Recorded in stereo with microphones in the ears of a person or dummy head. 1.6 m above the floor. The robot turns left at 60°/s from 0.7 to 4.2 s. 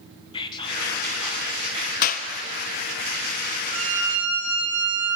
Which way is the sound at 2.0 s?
50° left (ahead or behind).